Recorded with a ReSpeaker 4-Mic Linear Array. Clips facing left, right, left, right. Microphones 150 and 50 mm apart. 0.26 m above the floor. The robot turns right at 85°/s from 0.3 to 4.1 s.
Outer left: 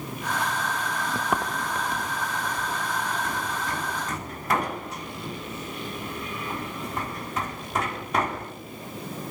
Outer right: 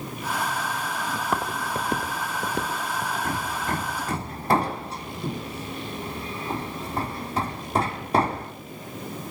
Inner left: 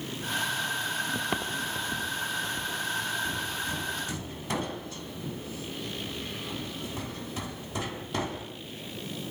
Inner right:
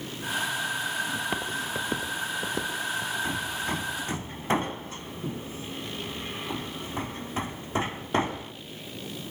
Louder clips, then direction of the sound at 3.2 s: Outer right 2 dB, inner right 2 dB; 50° right (ahead or behind).